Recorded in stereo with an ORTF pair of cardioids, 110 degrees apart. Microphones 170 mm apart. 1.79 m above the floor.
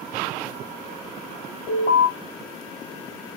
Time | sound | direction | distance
1.7 | an alarm | 65° left | 3 m